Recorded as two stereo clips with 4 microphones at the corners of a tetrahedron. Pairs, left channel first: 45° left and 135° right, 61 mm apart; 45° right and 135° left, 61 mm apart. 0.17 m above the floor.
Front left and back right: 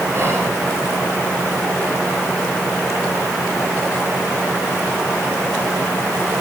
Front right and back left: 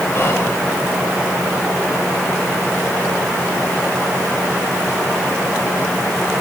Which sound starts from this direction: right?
Whispering, at 0.1 s.